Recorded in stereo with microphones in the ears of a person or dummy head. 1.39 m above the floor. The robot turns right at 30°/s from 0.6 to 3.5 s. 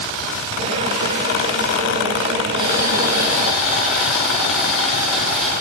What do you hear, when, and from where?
2.6 s boiling: 30° right (ahead or behind), 3.5 m; by 5.5 s 5° right (ahead or behind), 3.5 m